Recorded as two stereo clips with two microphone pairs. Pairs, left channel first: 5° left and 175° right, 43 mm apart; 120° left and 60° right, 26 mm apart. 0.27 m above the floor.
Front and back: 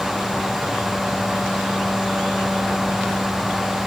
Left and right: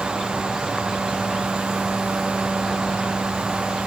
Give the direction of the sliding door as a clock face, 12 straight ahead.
I don't hear a sliding door.